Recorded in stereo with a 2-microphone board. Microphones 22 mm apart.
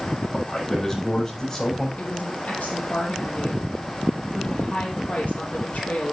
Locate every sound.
0.3 s a man speaking: 30° left (ahead or behind), 8 m; by 1.9 s 25° left (ahead or behind), 7.5 m
2.0 s a woman speaking: 80° left, 4 m